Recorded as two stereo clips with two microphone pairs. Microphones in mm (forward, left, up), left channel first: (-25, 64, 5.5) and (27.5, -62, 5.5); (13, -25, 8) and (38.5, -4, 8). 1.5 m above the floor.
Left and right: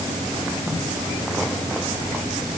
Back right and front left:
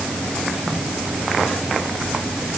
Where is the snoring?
No snoring in this recording.